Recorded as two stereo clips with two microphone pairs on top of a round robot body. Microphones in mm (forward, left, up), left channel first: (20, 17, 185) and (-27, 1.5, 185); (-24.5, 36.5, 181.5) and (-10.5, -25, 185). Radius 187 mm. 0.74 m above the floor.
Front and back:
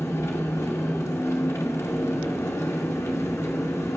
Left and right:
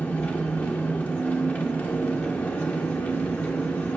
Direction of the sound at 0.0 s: 35° left.